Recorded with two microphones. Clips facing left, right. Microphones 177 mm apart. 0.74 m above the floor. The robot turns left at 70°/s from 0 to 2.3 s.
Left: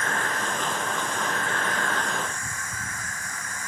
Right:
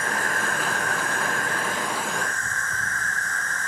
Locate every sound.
0.0 s an insect: 30° right, 1.8 m; by 3.7 s 170° left, 1.8 m